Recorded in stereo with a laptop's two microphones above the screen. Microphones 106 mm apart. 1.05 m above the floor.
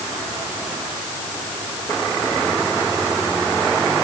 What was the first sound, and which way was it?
Only background noise.